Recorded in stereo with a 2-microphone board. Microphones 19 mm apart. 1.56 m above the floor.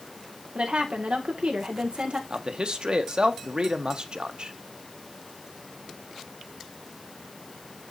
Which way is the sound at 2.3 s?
55° right (ahead or behind).